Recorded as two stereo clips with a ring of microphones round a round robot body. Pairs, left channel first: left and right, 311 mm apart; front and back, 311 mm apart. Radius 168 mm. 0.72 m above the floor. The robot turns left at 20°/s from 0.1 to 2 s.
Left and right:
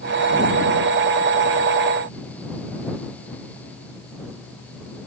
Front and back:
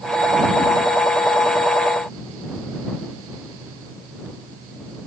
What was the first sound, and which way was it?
Only background noise.